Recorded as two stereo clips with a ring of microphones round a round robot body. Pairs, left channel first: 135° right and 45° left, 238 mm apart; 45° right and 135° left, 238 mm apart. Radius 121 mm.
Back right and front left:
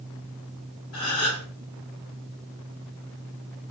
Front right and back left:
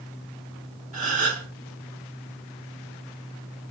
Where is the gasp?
165° right, 1.7 m.